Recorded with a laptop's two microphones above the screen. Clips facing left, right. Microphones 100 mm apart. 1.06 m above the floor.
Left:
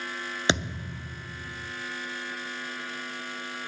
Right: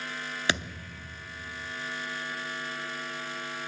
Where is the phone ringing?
No phone ringing in this recording.